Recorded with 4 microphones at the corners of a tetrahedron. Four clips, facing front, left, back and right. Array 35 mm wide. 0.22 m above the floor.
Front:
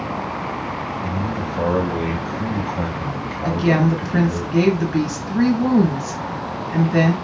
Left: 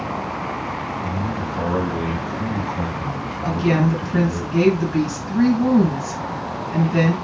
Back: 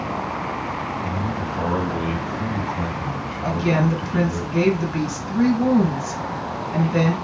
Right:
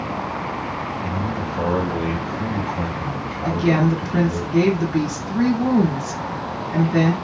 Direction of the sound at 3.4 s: 5° right.